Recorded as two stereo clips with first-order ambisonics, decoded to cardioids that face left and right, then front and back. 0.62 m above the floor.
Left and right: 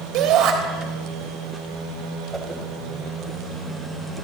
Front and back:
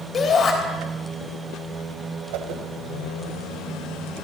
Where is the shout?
60° right, 3 m.